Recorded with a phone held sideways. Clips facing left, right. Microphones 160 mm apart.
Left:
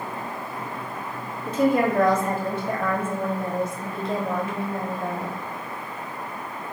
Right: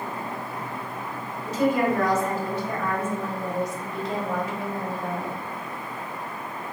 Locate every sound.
1.5 s a woman speaking: 55° left (ahead or behind), 1.1 m